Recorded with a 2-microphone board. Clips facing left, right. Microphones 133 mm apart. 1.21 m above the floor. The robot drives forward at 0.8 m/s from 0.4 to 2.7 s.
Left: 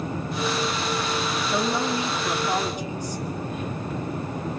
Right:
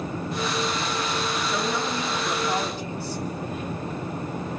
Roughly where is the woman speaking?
Left.